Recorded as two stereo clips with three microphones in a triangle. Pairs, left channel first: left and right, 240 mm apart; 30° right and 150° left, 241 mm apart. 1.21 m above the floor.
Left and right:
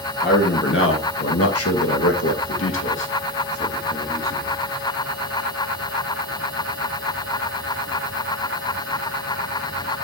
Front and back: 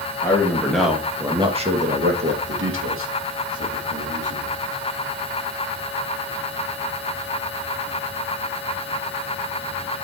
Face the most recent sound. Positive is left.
turn(degrees=140)